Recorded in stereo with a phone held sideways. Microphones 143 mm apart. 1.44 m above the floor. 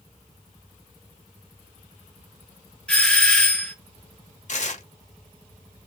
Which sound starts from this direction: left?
Tearing paper, at 4.5 s.